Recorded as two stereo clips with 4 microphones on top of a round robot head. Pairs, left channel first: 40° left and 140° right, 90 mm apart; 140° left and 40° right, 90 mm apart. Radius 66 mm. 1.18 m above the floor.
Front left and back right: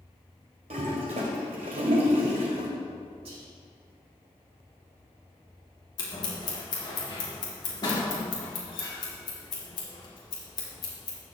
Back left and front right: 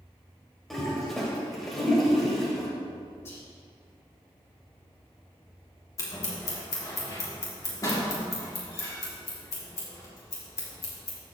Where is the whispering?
155° right, 3.5 m.